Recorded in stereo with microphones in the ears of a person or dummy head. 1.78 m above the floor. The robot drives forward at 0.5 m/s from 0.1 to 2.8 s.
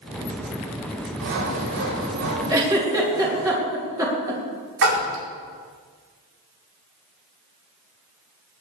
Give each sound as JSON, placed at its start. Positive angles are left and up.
{"t": 1.2, "sound": "sawing", "side_deg": -80, "distance_m": 6.5}
{"t": 2.5, "sound": "a giggle", "side_deg": -20, "distance_m": 3.5}
{"t": 4.8, "sound": "a splash", "side_deg": -80, "distance_m": 4.5}